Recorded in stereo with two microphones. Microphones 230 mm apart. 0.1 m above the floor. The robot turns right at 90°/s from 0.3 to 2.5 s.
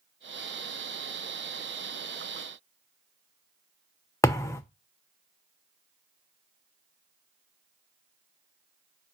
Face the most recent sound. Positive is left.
turn(degrees=10)  # may be behind; listen again after turning